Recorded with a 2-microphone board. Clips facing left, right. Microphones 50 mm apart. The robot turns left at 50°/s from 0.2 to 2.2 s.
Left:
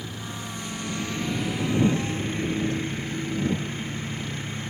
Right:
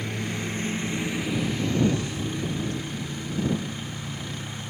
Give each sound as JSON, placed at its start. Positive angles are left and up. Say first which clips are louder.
{"t": 0.0, "sound": "a lawn mower", "louder": "right 5 dB", "azimuth_deg": -120}